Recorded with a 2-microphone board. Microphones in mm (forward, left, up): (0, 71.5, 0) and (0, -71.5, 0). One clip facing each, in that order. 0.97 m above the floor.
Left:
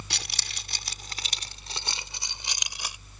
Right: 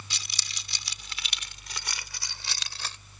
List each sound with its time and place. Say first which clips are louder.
0.1 s keys jangling: left 5 dB; 65° left (ahead or behind); by 3.0 s 15° left (ahead or behind)